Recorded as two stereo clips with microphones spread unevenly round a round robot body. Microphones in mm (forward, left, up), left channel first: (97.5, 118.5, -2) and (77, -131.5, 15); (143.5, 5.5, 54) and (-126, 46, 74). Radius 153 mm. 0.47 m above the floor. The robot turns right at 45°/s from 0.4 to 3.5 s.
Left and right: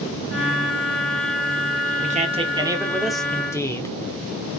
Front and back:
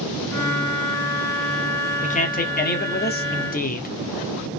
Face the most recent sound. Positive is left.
turn(degrees=15)